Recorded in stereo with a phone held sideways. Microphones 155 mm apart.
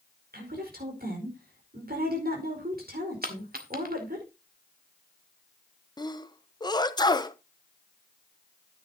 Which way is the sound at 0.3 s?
80° right.